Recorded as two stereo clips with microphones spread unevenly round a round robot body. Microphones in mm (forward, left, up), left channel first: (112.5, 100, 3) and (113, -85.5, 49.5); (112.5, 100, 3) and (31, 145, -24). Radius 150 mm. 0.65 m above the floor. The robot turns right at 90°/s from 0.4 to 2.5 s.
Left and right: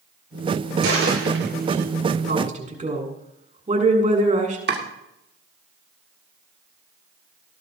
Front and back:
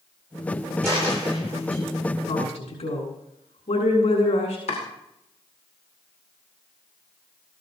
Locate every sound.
0.8 s a dropped coin: 125° right, 6.5 m; by 1.8 s 35° right, 6.5 m
2.3 s a woman speaking: 60° right, 7.5 m; by 4.6 s 40° right, 7.5 m
4.7 s chopping: 60° right, 2.5 m